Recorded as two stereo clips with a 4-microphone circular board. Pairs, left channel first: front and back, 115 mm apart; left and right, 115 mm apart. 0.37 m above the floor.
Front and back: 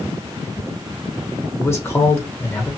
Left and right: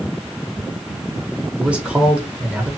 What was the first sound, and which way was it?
A man speaking, 25° right.